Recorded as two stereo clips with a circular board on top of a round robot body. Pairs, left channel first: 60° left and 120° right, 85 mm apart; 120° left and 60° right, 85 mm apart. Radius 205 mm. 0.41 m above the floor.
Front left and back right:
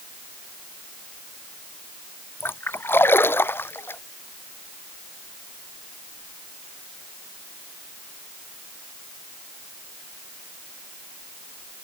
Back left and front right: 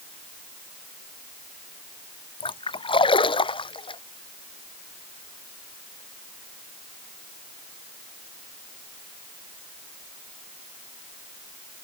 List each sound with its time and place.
2.4 s a splash: 125° left